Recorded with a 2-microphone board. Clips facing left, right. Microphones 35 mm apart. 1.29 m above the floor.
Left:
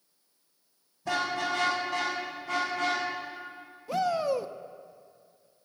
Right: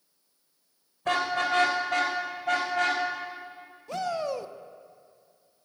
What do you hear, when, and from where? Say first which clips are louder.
1.1 s a car horn: right 3 dB; 60° right (ahead or behind), 2.5 m; by 3.0 s 80° right, 3.5 m
3.9 s a shout: left 3 dB; 5° left (ahead or behind), 0.7 m